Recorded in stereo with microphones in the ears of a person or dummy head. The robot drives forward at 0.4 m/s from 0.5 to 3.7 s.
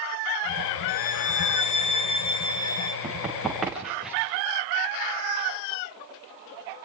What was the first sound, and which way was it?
A violin, 40° left (ahead or behind).